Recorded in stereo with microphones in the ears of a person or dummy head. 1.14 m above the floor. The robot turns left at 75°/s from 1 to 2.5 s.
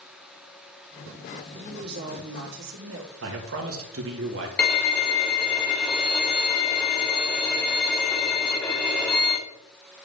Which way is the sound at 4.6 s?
5° left (ahead or behind).